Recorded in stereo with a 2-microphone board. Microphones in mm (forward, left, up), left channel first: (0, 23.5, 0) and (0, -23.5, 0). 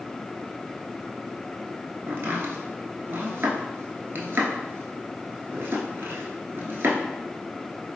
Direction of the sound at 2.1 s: 50° right (ahead or behind).